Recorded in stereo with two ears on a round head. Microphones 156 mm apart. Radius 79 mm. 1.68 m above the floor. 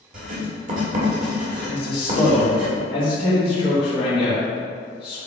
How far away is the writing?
About 1.8 m.